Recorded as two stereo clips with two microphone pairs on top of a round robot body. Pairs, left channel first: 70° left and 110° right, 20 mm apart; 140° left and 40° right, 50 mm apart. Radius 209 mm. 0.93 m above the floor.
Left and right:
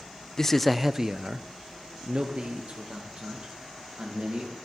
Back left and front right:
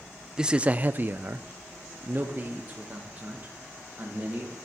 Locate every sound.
0.4 s a man speaking: 35° left, 0.6 m; by 4.5 s 95° right, 2 m